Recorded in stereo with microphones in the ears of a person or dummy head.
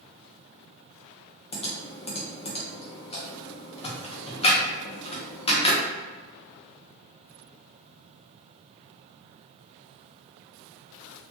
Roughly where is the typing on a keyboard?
Left.